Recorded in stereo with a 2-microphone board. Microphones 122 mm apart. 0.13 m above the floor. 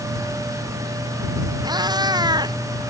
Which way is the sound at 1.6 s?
35° right (ahead or behind).